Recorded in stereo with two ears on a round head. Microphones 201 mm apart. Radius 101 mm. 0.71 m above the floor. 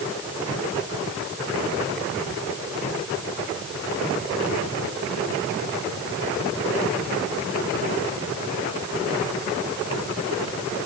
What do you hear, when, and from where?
Only background noise.